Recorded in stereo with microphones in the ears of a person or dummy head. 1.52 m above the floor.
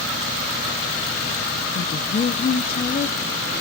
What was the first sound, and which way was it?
A woman speaking, 35° left (ahead or behind).